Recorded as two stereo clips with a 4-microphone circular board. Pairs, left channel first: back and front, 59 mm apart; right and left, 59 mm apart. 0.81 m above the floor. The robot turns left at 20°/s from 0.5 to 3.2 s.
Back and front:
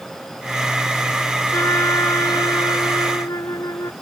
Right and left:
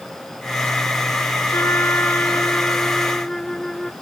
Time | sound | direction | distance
1.5 | a trumpet | 135° right | ?